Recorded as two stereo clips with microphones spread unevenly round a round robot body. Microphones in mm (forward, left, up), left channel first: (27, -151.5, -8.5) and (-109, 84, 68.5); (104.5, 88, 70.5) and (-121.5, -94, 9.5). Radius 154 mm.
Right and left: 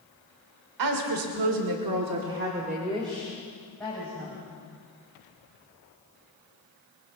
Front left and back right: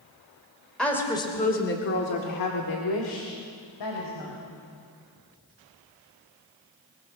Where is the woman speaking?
130° left, 2.5 m; by 4.4 s 20° left, 4 m.